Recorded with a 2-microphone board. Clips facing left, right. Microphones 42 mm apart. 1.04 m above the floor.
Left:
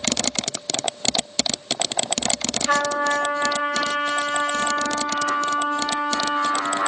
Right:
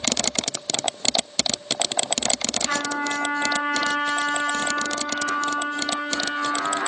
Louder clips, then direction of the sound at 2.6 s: Left 6 dB; 45° left (ahead or behind).